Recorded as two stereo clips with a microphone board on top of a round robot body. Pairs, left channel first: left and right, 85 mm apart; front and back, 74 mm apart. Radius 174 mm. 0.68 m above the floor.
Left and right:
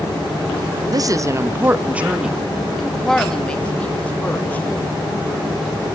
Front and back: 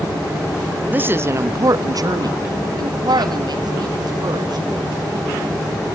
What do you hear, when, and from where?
0.9 s a woman speaking: 120° right, 1.0 m; by 4.7 s 160° left, 2 m